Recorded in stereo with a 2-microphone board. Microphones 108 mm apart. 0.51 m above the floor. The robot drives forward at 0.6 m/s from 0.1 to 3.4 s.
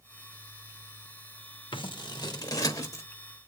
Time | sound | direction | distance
1.7 | scissors | 50° left (ahead or behind) | 0.9 m